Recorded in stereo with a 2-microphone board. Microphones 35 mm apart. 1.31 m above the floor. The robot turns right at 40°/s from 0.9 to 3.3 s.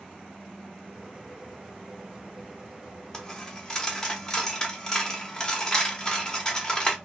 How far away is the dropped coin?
About 1.0 m.